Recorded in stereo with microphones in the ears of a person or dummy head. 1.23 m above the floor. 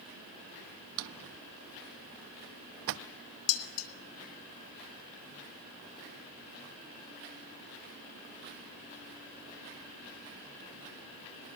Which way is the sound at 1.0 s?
65° right (ahead or behind).